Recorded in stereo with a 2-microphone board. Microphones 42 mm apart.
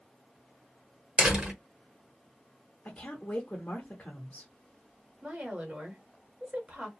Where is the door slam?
25° right (ahead or behind), 1.1 m.